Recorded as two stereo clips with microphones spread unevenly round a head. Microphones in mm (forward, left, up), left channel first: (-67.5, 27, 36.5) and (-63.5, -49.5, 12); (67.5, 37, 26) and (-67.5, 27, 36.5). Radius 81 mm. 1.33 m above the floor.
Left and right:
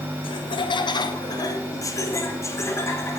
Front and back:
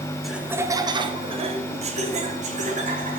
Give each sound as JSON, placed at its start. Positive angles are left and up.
{"t": 0.2, "sound": "laughter", "azimuth_deg": 90, "distance_m": 0.7}